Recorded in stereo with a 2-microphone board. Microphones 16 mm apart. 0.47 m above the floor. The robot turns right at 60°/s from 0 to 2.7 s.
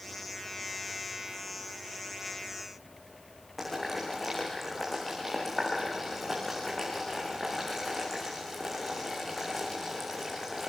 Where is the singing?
No singing in this recording.